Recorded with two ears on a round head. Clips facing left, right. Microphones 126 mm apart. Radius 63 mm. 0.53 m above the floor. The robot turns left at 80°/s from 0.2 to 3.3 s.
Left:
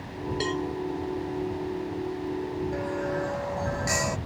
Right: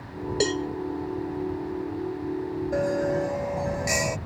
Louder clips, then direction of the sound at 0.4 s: Right 4 dB; 55° right (ahead or behind).